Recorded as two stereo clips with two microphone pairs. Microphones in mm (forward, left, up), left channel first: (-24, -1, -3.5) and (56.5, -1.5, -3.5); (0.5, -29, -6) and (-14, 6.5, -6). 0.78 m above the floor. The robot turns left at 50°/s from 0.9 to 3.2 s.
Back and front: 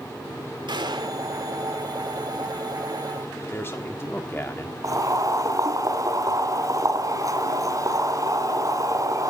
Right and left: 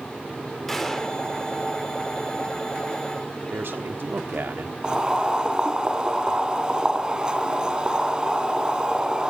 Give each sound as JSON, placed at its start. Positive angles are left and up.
{"t": 0.7, "sound": "a gunshot", "azimuth_deg": 15, "distance_m": 2.0}
{"t": 3.5, "sound": "a man speaking", "azimuth_deg": 120, "distance_m": 1.4}
{"t": 4.8, "sound": "boiling", "azimuth_deg": 45, "distance_m": 2.5}